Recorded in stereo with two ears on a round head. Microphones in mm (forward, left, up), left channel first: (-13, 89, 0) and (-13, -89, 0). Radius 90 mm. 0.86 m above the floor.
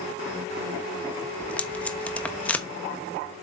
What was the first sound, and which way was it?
Tape being pulled, 10° left (ahead or behind).